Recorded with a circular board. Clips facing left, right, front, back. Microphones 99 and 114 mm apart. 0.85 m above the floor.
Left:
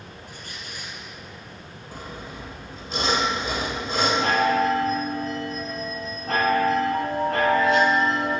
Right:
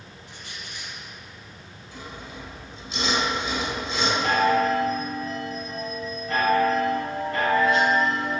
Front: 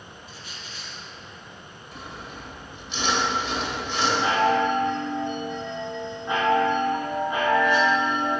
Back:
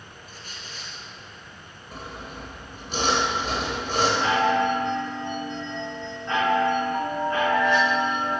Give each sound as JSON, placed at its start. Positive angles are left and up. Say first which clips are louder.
{"t": 0.3, "sound": "a squeak", "louder": "right 1 dB, even", "azimuth_deg": 135, "distance_m": 3.0}
{"t": 1.9, "sound": "sawing", "louder": "left 2 dB, back 2 dB", "azimuth_deg": 130, "distance_m": 2.5}
{"t": 4.2, "sound": "a chime", "louder": "right 2 dB, front 3 dB", "azimuth_deg": 75, "distance_m": 5.5}